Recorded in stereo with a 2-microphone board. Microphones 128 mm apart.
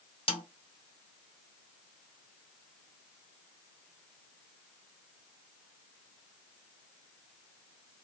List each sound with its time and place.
0.3 s a snare drum: 45° left (ahead or behind), 0.7 m